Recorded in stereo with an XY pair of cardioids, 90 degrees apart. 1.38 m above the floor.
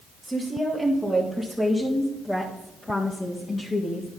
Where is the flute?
No flute in this recording.